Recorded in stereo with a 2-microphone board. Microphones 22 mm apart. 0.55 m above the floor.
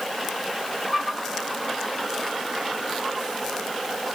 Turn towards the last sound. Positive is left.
No sound to turn to.